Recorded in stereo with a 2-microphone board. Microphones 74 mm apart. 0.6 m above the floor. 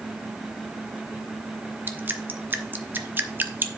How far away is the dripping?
About 0.9 m.